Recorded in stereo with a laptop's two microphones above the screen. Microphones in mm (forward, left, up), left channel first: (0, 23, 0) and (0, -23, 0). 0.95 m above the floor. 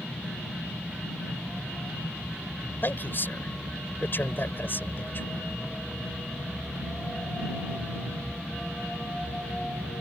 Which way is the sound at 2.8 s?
45° left (ahead or behind).